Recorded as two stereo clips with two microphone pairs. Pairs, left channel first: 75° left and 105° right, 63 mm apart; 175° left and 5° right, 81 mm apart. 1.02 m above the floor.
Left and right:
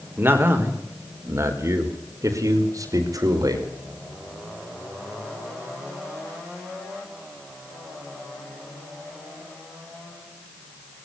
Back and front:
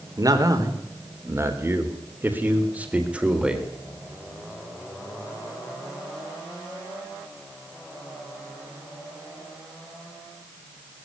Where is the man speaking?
45° right, 4 m; by 3.7 s 85° right, 4.5 m.